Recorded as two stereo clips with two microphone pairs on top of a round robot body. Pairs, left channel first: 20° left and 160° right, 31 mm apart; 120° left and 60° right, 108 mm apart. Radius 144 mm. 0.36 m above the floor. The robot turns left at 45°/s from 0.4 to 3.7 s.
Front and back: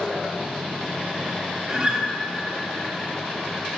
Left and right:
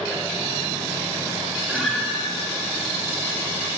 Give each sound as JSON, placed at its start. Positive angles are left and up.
{"t": 1.7, "sound": "a guitar", "azimuth_deg": -150, "distance_m": 0.7}